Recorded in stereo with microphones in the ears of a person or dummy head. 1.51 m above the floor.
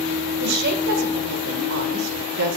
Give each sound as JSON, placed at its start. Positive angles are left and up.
{"t": 0.4, "sound": "a woman speaking", "side_deg": -60, "distance_m": 1.6}